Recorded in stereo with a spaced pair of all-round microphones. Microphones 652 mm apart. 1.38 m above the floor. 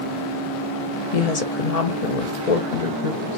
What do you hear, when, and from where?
1.1 s a woman speaking: 70° left (ahead or behind), 0.9 m